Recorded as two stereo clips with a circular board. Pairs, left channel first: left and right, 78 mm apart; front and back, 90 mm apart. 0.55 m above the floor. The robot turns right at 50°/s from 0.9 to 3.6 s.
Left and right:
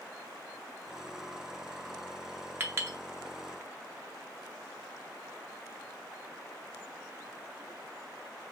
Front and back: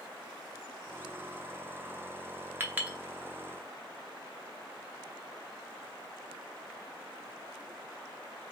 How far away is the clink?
About 0.6 m.